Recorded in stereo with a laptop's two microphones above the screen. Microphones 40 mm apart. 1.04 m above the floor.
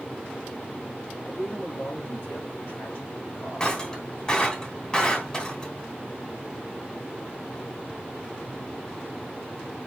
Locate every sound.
1.2 s a man speaking: 65° left (ahead or behind), 3 m
3.6 s breaking glass: 20° left (ahead or behind), 3 m